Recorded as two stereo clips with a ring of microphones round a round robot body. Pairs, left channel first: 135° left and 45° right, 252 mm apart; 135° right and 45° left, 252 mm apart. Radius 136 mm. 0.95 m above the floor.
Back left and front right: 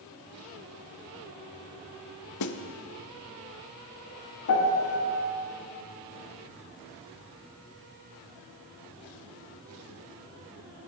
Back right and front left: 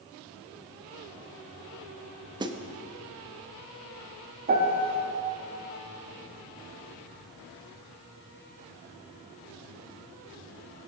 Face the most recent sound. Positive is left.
turn(degrees=100)